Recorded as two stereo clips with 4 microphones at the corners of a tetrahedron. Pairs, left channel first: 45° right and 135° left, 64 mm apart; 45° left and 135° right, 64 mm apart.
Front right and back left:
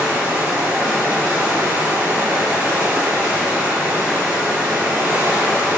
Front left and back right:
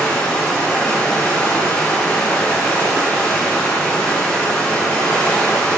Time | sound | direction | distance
0.0 | running water | 100° left | 1.2 m